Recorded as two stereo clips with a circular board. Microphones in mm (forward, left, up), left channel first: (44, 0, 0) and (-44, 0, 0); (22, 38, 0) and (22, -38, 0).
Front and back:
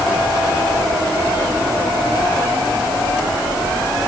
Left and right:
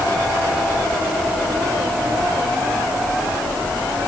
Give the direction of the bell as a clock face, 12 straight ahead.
I don't hear a bell.